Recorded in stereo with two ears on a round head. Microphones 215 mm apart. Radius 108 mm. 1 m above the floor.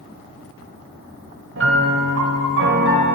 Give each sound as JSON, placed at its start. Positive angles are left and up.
{"t": 1.6, "sound": "a piano", "side_deg": -55, "distance_m": 4.0}